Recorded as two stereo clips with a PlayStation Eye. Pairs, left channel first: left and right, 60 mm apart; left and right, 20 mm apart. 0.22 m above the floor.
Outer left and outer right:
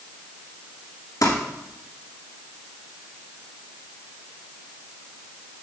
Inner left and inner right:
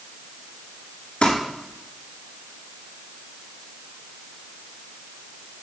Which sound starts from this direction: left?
Crumpling, at 1.2 s.